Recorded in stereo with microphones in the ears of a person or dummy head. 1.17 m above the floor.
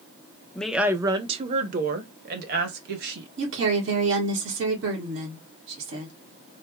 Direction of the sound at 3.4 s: 70° right (ahead or behind).